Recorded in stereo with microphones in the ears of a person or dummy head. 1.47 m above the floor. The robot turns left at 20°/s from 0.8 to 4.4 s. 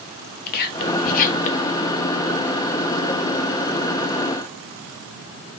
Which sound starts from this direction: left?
Whispering, at 0.5 s.